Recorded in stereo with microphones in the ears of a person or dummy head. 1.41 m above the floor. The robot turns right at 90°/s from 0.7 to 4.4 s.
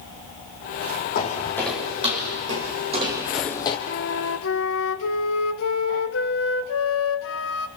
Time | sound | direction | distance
1.1 | footsteps | 55° left (ahead or behind) | 3 m
3.9 | a flute | 40° left | 1.6 m